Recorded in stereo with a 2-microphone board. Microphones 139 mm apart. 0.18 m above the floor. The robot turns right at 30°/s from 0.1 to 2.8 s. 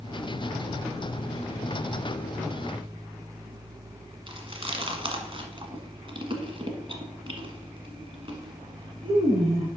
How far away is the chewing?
About 1.3 m.